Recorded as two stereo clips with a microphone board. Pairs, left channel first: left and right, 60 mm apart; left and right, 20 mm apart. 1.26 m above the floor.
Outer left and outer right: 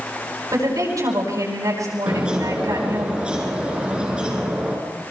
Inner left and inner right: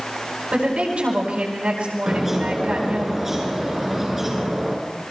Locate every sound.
0.5 s a woman speaking: 75° right (ahead or behind), 9.5 m
2.1 s a bird: 15° right (ahead or behind), 4.5 m